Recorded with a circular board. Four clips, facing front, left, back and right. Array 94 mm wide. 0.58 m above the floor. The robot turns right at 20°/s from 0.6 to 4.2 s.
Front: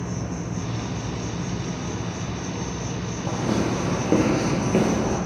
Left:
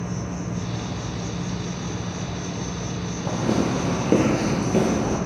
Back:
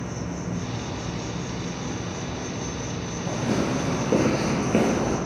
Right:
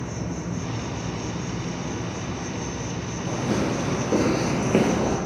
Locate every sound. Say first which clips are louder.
0.0 s an insect: left 1 dB, front 1 dB; 50° right, 2.0 m; by 5.3 s 20° left, 2.0 m
3.2 s footsteps: left 2 dB, front 1 dB; 60° left, 1.4 m; by 5.2 s 100° right, 0.9 m